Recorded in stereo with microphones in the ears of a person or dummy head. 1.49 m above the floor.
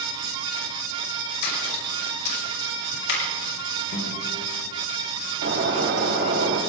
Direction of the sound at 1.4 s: 70° left (ahead or behind).